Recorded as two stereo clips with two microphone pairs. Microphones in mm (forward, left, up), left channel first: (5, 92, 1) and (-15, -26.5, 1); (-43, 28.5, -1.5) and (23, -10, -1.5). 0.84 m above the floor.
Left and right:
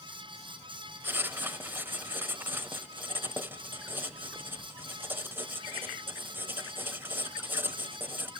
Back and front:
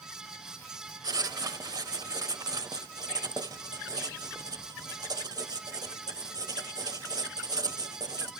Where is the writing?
30° right, 0.8 m.